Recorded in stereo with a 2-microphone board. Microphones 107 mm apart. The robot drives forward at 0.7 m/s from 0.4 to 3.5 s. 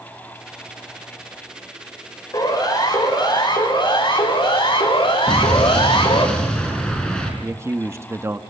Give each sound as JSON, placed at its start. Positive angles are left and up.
{"t": 2.3, "sound": "a siren", "side_deg": 45, "distance_m": 5.5}
{"t": 5.3, "sound": "an explosion", "side_deg": 10, "distance_m": 5.0}
{"t": 7.4, "sound": "a man speaking", "side_deg": -30, "distance_m": 1.0}